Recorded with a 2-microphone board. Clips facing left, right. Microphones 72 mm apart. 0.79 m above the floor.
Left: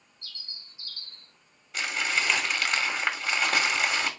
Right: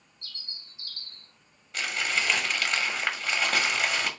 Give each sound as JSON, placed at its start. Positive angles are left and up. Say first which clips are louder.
{"t": 0.2, "sound": "a bird", "louder": "right 1 dB", "side_deg": -60, "distance_m": 2.0}
{"t": 1.7, "sound": "crumpling", "louder": "left 1 dB", "side_deg": 5, "distance_m": 1.2}